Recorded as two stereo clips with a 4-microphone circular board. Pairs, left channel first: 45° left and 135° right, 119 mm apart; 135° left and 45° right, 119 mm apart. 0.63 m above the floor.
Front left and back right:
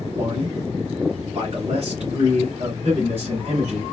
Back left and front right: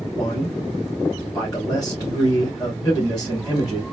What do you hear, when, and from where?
0.1 s a man speaking: 170° right, 2.5 m